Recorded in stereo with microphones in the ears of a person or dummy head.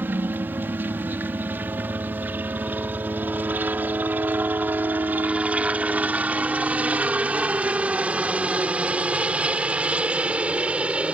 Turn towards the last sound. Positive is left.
turn(degrees=-10)  # may be behind; listen again after turning